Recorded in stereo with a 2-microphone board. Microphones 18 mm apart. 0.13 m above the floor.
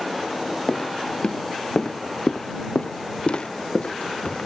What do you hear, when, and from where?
0.7 s footsteps: 60° left (ahead or behind)